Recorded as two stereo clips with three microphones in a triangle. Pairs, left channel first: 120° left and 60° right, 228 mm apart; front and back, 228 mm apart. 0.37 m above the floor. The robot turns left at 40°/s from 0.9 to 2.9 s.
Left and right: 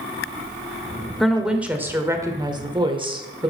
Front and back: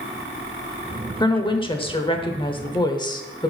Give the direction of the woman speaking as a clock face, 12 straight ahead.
11 o'clock.